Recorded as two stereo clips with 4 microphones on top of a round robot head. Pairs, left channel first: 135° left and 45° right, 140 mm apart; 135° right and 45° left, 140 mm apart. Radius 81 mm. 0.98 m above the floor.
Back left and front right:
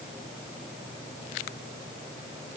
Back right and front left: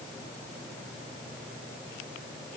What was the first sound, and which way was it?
Only background noise.